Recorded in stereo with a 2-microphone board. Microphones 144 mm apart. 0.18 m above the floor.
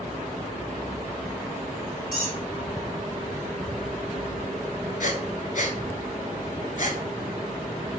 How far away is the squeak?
About 1.3 m.